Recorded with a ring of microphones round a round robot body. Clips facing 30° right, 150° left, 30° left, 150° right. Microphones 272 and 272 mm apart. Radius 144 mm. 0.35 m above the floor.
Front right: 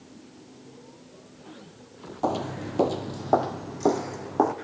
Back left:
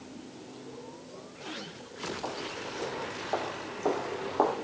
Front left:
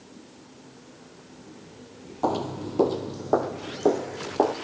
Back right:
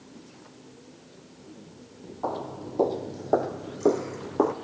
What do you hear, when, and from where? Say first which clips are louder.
2.2 s footsteps: front right 9 dB, front left 6 dB; 10° right, 0.7 m; by 4.5 s 75° right, 1.5 m